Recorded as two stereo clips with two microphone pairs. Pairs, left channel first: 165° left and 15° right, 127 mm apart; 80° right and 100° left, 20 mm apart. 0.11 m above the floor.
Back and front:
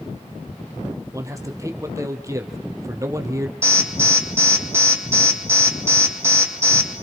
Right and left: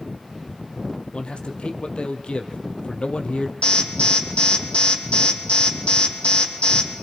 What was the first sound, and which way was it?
A man speaking, 80° right.